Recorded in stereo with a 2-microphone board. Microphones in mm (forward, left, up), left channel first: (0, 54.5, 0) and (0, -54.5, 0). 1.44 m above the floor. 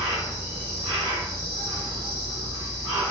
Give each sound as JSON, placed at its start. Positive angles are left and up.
{"t": 0.0, "sound": "an insect", "side_deg": -35, "distance_m": 1.8}